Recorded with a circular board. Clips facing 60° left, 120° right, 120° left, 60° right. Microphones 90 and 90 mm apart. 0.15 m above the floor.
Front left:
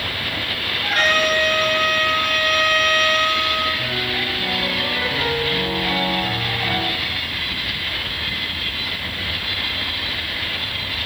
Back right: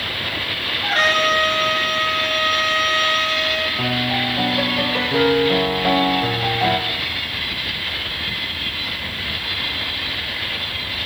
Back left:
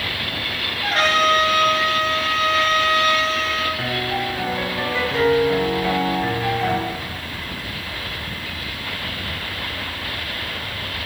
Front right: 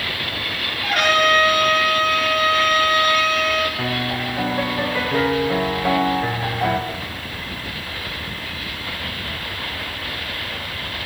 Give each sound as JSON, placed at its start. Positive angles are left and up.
{"t": 0.8, "sound": "a trumpet", "azimuth_deg": 180, "distance_m": 3.5}
{"t": 3.8, "sound": "a piano", "azimuth_deg": -140, "distance_m": 3.5}